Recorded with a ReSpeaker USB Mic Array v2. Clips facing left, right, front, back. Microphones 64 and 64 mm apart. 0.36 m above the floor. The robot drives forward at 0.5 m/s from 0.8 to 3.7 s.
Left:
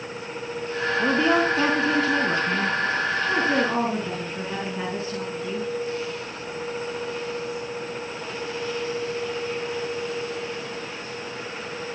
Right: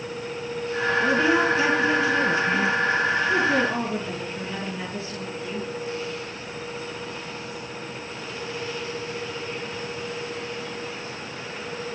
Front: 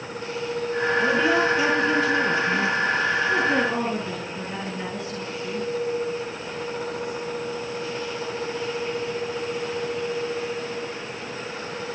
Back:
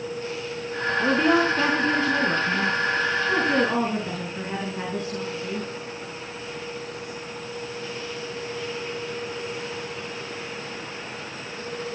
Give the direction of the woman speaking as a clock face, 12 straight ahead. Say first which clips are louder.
Left 1 dB, back 2 dB; 8 o'clock.